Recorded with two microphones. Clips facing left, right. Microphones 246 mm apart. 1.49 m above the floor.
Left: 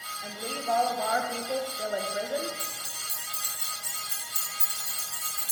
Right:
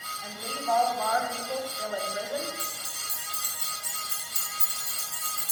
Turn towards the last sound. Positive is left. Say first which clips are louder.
# right 1 dB
turn(degrees=10)  # may be behind; listen again after turning